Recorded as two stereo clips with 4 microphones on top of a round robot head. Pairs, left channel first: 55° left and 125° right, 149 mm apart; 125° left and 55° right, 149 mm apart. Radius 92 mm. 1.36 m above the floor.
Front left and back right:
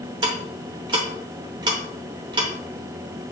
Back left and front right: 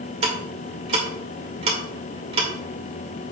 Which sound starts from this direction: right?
Ticking, at 0.2 s.